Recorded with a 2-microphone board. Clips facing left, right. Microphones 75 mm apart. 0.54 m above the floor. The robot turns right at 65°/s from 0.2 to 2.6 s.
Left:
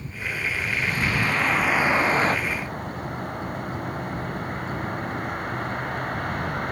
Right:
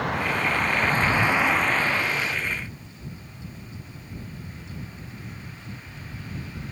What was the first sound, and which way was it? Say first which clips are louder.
A vehicle: right 6 dB; 90° right.